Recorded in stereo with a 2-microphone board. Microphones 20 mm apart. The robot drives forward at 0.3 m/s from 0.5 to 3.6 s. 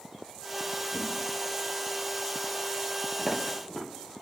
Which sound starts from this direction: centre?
Footsteps, at 3.2 s.